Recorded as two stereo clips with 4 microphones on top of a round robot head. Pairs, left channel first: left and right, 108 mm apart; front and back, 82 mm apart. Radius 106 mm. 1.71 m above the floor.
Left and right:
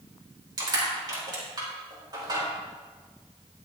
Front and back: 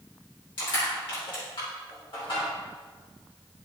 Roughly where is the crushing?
Ahead right.